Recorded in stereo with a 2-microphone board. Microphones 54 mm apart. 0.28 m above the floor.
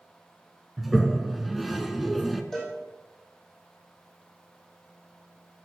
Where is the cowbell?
Centre (ahead or behind), 4 m.